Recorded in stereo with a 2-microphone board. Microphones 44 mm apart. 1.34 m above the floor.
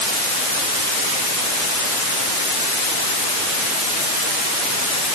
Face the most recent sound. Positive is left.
No sound to turn to.